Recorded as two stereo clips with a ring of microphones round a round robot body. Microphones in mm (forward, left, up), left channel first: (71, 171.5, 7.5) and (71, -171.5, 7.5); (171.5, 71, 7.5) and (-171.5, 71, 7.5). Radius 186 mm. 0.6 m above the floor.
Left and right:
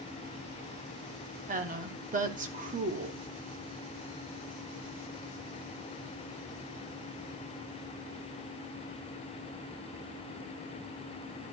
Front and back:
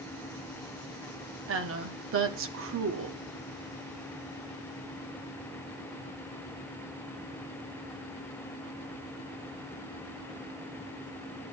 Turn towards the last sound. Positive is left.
turn(degrees=-150)